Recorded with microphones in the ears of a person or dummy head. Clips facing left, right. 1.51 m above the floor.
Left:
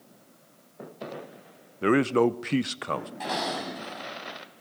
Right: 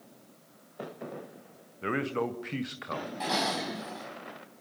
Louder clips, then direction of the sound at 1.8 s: Left 10 dB; 55° left (ahead or behind).